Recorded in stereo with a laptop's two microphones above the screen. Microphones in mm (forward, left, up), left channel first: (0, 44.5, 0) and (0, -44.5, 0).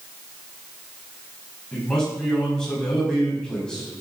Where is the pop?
No pop in this recording.